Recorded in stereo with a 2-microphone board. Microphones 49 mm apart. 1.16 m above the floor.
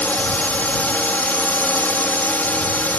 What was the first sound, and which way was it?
A drone, 30° left (ahead or behind).